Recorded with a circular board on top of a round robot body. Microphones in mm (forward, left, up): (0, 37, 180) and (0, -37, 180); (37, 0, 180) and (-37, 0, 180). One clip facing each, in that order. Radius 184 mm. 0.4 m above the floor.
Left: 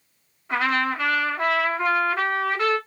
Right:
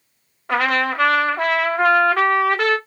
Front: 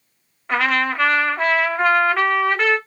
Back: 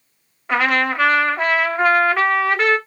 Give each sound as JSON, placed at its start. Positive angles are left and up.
{"t": 0.5, "sound": "a trumpet", "azimuth_deg": -90, "distance_m": 0.8}